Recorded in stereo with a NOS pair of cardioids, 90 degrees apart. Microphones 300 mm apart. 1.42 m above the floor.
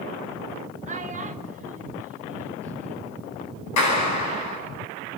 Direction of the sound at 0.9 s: 25° right.